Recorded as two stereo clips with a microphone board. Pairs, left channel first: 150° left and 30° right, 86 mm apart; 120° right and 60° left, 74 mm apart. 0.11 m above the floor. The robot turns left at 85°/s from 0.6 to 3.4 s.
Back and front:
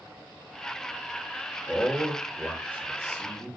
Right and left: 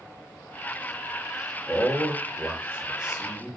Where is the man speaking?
105° left, 1.3 m; by 3.6 s 40° right, 1.3 m.